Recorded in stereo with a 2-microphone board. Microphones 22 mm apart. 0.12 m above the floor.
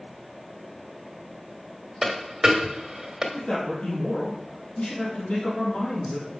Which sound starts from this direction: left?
A man speaking, at 3.3 s.